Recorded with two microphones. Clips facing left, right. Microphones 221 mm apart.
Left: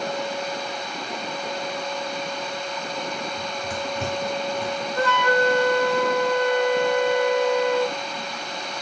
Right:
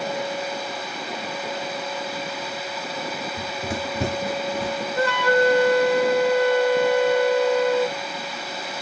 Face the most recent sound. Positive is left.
turn(degrees=-15)  # may be behind; listen again after turning